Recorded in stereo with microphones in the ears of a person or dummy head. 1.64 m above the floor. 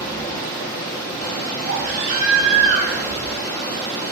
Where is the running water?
15° left (ahead or behind), 0.8 m.